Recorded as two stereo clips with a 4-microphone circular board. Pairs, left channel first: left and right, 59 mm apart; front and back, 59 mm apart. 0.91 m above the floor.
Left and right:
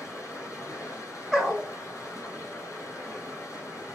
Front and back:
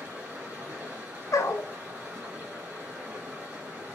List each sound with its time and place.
0.0 s running water: 120° left, 2.5 m
1.3 s a dog barking: 5° right, 1.0 m